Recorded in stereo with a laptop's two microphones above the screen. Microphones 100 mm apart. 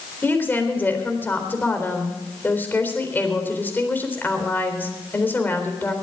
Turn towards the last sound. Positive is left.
turn(degrees=20)  # may be behind; listen again after turning